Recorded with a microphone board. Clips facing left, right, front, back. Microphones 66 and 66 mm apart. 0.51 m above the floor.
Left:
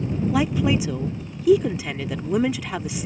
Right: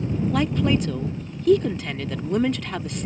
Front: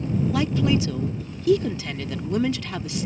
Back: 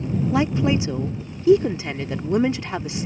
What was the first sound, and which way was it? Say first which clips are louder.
A woman speaking: left 1 dB, back 3 dB; 160° left.